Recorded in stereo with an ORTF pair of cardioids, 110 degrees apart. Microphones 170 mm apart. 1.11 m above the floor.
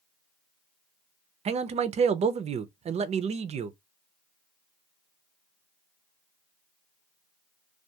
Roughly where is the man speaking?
Ahead right.